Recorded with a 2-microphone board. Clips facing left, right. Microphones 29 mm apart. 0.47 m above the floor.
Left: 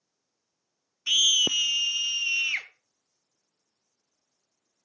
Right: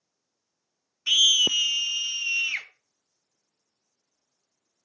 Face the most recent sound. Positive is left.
turn(degrees=10)  # may be behind; listen again after turning